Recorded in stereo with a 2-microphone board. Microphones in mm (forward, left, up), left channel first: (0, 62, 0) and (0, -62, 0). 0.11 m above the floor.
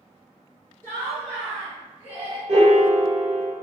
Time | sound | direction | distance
0.8 | laughter | 20° left (ahead or behind) | 1.6 m
2.5 | a piano | 55° right (ahead or behind) | 0.6 m